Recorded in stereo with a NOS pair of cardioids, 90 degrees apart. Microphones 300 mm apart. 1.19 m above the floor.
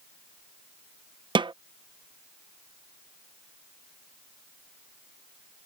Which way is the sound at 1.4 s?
15° right.